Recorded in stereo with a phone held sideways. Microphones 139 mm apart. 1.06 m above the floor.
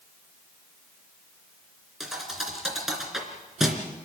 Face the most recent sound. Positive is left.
turn(degrees=0)  # may be behind; listen again after turning